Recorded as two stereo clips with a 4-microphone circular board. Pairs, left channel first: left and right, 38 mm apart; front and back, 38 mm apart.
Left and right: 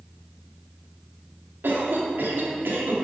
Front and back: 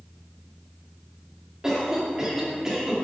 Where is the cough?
110° right, 2 m.